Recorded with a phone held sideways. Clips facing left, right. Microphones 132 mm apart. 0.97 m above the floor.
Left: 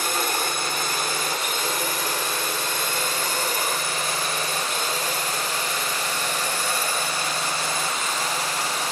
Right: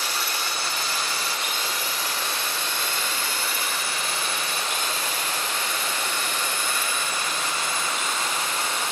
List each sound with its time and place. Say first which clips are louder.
0.0 s a drone: left 5 dB; 50° left (ahead or behind); by 8.9 s 35° left (ahead or behind)